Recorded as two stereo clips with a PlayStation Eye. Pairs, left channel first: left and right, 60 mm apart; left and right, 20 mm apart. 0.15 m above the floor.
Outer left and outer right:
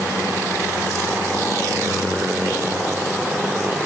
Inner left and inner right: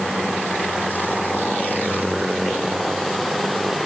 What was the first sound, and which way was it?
Only background noise.